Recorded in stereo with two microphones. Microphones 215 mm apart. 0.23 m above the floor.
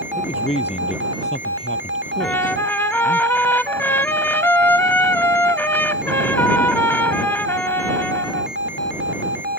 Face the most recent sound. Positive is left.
turn(degrees=10)  # may be behind; listen again after turning